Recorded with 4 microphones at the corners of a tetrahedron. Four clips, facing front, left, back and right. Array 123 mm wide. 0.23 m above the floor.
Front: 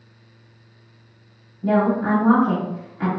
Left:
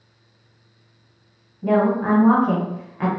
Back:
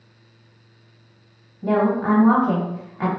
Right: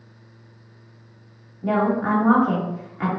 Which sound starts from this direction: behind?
A woman speaking, at 1.6 s.